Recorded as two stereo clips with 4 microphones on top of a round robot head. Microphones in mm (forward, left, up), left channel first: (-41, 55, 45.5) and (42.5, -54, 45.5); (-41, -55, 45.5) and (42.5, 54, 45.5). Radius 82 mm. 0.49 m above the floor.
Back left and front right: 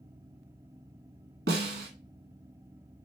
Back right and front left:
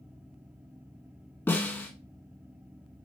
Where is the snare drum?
50° right, 0.8 m.